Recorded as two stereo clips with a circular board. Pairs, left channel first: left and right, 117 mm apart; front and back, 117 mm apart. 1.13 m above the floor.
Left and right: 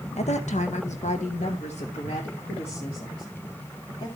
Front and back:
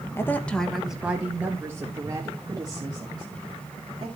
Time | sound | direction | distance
0.2 | a woman speaking | 70° left | 0.8 m